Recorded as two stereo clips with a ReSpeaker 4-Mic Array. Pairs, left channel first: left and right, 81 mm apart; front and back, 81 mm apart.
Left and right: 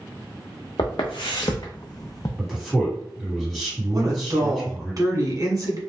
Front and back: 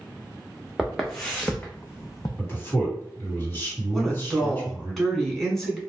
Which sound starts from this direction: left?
Footsteps, at 0.8 s.